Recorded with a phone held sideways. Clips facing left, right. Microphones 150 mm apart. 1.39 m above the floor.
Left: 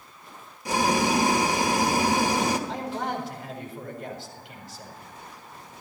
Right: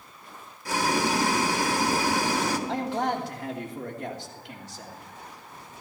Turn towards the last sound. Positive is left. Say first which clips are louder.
# right 3 dB
turn(degrees=-80)